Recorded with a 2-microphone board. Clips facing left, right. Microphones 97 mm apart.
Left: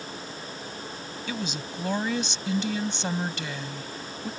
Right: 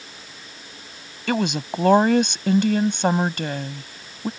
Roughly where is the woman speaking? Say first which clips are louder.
Right 11 dB; right.